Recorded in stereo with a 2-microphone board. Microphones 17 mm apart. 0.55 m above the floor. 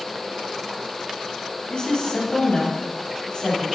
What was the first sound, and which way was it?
A woman speaking, 45° left (ahead or behind).